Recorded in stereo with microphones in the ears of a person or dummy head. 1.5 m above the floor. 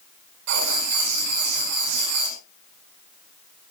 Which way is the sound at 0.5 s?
65° right (ahead or behind).